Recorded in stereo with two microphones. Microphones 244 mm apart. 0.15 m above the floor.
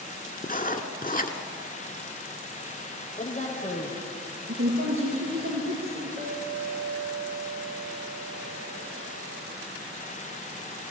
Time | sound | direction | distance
0.4 | writing | 35° left (ahead or behind) | 1.5 m
3.2 | a woman speaking | 30° left (ahead or behind) | 5 m
4.5 | a woman speaking | 60° right (ahead or behind) | 4.5 m
6.2 | a clink | 15° right (ahead or behind) | 7.5 m